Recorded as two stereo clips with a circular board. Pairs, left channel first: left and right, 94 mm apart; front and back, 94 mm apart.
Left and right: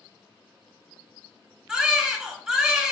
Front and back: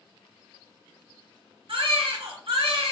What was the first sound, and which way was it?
A baby crying, 175° right.